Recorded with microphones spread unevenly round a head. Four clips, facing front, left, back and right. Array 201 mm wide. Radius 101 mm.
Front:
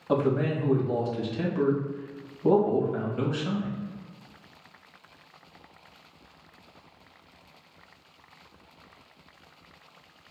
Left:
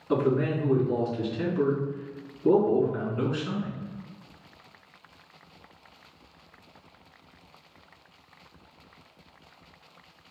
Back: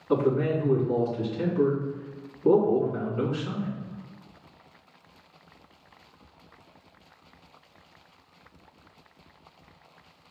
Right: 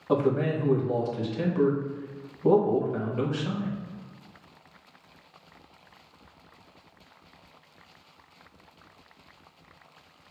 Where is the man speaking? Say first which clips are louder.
Even, back 1 dB; 50° right, 2 m.